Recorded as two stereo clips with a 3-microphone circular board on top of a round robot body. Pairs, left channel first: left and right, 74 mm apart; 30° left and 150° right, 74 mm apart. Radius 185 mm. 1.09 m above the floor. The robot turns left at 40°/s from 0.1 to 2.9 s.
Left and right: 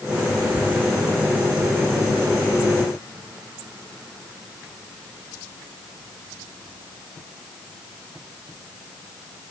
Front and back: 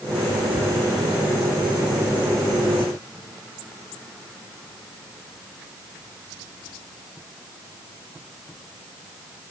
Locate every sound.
Only background noise.